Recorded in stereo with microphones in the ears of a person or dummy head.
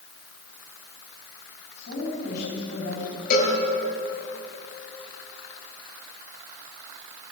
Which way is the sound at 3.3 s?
55° left (ahead or behind).